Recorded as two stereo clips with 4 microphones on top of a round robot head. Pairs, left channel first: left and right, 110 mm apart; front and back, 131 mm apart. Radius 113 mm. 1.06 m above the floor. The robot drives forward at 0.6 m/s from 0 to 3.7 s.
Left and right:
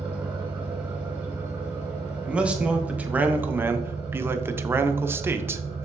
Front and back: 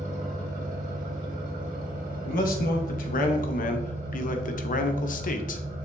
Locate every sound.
0.0 s an engine running: 140° right, 1.6 m; by 5.9 s 165° right, 3.5 m
2.2 s a man speaking: 10° right, 1.7 m; by 5.9 s 20° right, 0.9 m